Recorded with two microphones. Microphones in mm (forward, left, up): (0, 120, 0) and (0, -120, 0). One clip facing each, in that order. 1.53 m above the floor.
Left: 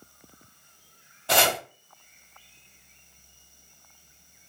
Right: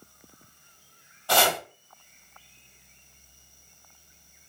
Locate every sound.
1.3 s chopping: 20° left (ahead or behind), 0.8 m